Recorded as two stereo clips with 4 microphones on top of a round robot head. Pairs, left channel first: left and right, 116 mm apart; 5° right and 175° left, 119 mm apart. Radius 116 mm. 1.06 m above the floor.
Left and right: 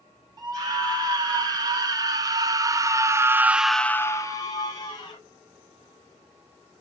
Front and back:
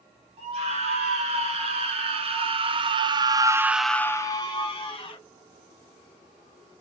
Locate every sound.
0.4 s a scream: 145° right, 3 m; by 5.2 s 40° left, 1.4 m